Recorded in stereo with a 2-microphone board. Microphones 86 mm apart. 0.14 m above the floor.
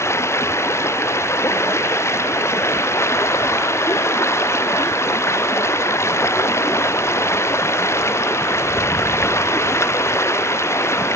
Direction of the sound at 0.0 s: 30° left (ahead or behind).